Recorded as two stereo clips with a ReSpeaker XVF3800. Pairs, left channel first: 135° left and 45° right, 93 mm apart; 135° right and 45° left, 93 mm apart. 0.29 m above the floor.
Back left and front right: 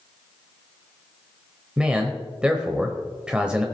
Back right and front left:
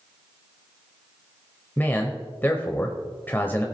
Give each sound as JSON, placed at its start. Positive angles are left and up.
{"t": 1.8, "sound": "a man speaking", "azimuth_deg": -110, "distance_m": 0.9}